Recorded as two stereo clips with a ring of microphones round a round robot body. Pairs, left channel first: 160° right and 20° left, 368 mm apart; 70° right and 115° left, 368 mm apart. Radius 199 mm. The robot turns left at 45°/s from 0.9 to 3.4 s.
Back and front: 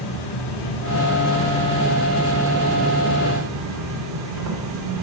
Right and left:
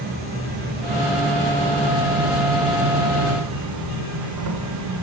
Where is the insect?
175° left, 1.7 m; by 5.0 s 65° left, 1.7 m.